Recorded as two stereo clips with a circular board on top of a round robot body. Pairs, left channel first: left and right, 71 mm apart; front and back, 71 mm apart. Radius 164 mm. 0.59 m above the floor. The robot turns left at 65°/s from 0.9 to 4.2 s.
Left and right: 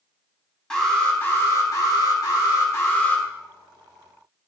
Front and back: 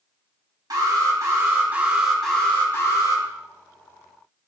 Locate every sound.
0.7 s an alarm: 165° left, 3.5 m; by 3.2 s 15° left, 3.5 m